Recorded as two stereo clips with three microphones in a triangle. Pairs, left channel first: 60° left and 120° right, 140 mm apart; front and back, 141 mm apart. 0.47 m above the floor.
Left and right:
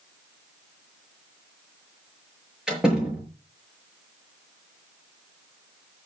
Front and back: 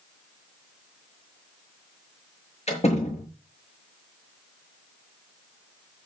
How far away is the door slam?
About 6.5 m.